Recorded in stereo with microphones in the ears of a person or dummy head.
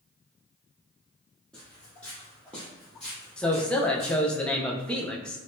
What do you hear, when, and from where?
1.5 s footsteps: 5° left (ahead or behind), 1.5 m
3.4 s a man speaking: 10° left (ahead or behind), 0.6 m